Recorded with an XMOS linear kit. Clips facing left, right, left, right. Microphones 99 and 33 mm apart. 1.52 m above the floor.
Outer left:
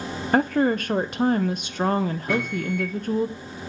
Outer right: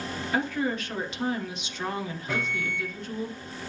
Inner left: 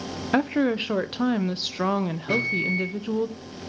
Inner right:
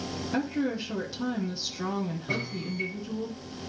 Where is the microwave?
55° left (ahead or behind), 3.5 m.